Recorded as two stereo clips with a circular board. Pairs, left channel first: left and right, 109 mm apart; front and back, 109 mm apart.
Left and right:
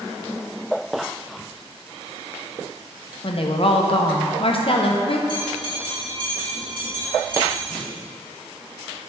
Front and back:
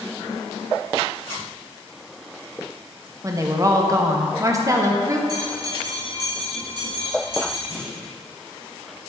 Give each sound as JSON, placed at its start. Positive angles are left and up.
{"t": 3.2, "sound": "a woman speaking", "azimuth_deg": 120, "distance_m": 0.8}
{"t": 5.3, "sound": "a bell", "azimuth_deg": -130, "distance_m": 2.5}
{"t": 7.7, "sound": "a clunk", "azimuth_deg": 155, "distance_m": 2.0}